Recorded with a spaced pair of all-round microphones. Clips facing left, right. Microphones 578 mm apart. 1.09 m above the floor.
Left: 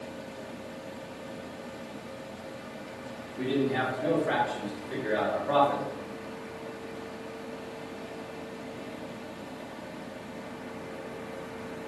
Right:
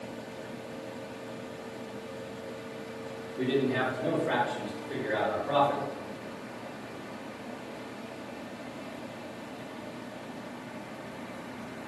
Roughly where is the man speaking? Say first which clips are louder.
Even; centre.